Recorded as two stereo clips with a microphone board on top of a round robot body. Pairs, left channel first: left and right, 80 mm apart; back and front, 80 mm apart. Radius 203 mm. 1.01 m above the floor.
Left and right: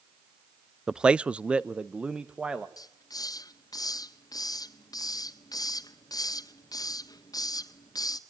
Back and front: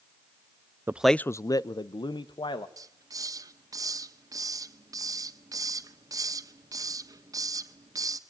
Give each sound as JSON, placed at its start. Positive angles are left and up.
{"t": 0.9, "sound": "a man speaking", "azimuth_deg": -15, "distance_m": 0.6}
{"t": 2.8, "sound": "a hiss", "azimuth_deg": 45, "distance_m": 1.5}